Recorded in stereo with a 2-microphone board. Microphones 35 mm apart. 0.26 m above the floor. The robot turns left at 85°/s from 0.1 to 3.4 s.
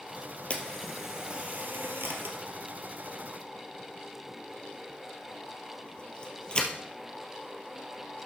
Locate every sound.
0.5 s a camera shutter: 35° left (ahead or behind), 1.5 m; by 8.3 s 30° left (ahead or behind), 1.5 m